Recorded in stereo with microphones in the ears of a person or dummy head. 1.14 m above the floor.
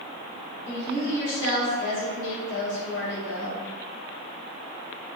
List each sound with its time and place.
0.7 s a woman speaking: 60° left (ahead or behind), 1.4 m